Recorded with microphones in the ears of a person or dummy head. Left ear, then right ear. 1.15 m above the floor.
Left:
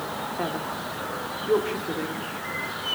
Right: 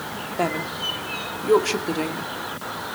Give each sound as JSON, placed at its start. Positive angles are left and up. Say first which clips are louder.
{"t": 0.4, "sound": "a woman speaking", "louder": "right 8 dB", "side_deg": -90, "distance_m": 2.0}